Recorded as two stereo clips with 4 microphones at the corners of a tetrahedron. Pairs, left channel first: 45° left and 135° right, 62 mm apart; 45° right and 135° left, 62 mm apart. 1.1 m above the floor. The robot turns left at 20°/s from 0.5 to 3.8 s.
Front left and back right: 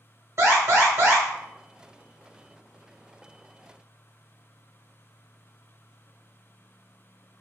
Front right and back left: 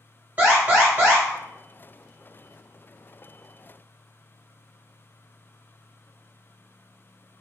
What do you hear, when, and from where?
0.4 s an alarm: 165° right, 1.4 m; by 1.2 s straight behind, 1.4 m